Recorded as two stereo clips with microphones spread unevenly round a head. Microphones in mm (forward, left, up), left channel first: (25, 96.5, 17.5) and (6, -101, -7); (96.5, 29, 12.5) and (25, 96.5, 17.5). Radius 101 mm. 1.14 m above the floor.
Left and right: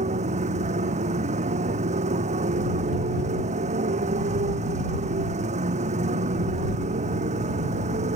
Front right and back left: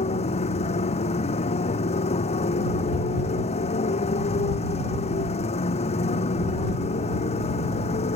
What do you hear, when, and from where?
0.0 s a motorcycle: 40° right